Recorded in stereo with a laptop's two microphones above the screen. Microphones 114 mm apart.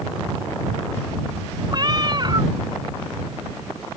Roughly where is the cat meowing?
Right.